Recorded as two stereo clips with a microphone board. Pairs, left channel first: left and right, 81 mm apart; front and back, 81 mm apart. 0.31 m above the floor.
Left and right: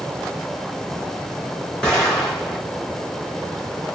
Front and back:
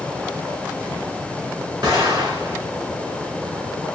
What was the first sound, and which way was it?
An explosion, 170° left.